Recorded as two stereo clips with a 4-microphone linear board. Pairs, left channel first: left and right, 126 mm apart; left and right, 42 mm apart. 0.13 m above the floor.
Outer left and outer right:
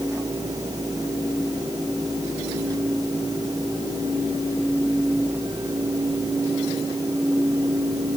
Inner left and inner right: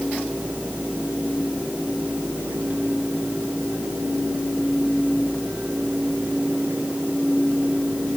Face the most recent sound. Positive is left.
No sound to turn to.